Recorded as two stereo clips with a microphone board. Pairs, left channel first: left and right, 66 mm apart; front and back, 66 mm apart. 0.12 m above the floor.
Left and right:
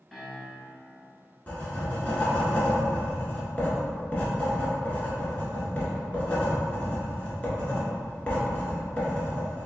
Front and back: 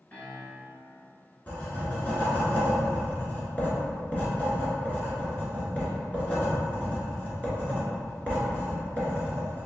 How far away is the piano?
About 1.1 m.